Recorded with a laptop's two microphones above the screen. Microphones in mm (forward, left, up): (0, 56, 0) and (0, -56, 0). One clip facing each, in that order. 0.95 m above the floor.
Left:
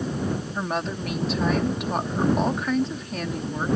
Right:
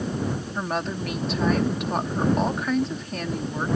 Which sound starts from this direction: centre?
A woman speaking, at 0.6 s.